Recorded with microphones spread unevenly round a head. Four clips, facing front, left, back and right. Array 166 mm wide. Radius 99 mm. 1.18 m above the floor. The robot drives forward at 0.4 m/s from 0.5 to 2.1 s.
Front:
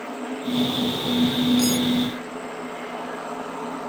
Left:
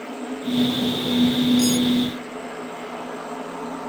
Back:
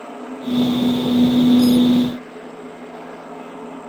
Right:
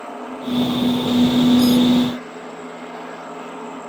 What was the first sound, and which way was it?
Cutlery clinking, 50° right.